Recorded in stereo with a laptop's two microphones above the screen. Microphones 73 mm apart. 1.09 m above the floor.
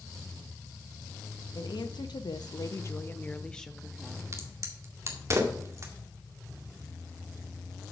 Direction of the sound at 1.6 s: 75° left (ahead or behind).